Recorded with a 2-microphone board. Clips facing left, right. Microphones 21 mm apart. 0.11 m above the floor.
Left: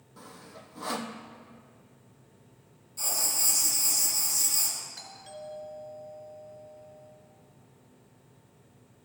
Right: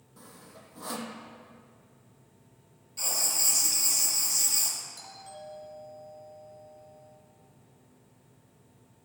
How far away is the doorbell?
About 3 m.